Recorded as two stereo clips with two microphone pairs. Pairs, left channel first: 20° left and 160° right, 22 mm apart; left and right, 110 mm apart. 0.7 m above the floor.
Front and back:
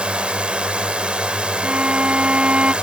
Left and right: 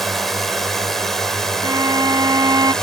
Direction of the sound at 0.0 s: 175° left.